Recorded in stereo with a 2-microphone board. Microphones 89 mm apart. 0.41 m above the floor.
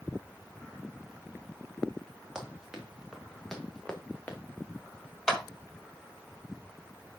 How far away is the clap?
About 1.3 m.